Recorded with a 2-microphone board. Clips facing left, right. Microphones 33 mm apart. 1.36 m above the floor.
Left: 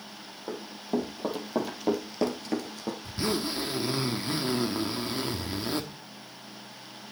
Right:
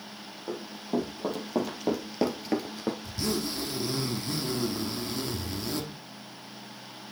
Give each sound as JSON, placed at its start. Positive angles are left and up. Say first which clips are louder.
{"t": 0.5, "sound": "running footsteps", "louder": "even", "side_deg": 10, "distance_m": 4.0}
{"t": 3.0, "sound": "a zipper", "louder": "left 1 dB", "side_deg": 30, "distance_m": 1.2}